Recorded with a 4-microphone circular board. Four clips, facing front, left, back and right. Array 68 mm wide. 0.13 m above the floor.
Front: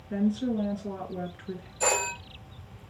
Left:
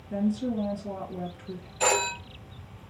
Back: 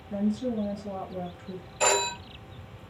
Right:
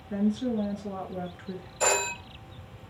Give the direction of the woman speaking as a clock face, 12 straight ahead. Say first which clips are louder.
Even, front 1 dB; 1 o'clock.